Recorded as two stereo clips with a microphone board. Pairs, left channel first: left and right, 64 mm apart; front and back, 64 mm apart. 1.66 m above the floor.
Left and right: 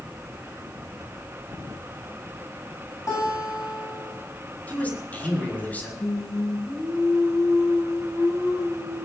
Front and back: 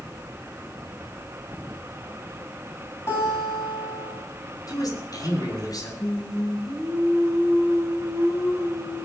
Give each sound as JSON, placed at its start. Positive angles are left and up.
{"t": 3.1, "sound": "a guitar", "azimuth_deg": 50, "distance_m": 9.5}
{"t": 4.7, "sound": "a man speaking", "azimuth_deg": 25, "distance_m": 6.0}
{"t": 6.0, "sound": "singing", "azimuth_deg": 50, "distance_m": 8.5}